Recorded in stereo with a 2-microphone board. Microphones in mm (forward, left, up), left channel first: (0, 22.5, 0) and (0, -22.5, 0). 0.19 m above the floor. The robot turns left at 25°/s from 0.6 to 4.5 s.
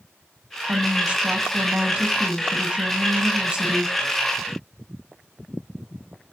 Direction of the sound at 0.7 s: 25° right (ahead or behind).